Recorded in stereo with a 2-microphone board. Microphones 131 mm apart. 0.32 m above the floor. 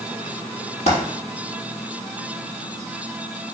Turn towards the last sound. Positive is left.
turn(degrees=55)  # may be behind; listen again after turning